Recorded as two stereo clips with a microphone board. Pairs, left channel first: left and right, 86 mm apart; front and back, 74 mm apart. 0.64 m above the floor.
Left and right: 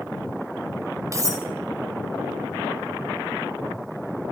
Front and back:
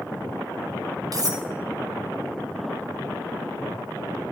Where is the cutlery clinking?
140° right, 1.7 m.